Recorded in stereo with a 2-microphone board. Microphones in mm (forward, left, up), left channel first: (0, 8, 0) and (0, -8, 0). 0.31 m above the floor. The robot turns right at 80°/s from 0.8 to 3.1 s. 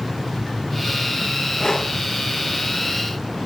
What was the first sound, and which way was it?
Breathing, 40° left (ahead or behind).